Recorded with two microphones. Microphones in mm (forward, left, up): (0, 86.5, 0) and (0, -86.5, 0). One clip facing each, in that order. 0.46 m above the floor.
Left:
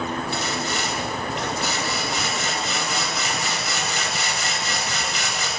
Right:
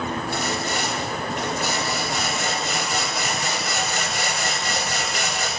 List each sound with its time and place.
0.3 s sawing: 55° right (ahead or behind), 3 m